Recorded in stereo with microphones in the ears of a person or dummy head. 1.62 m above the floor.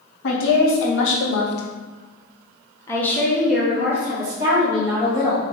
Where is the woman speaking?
75° left (ahead or behind), 1.7 m; by 5.5 s 20° right (ahead or behind), 2 m.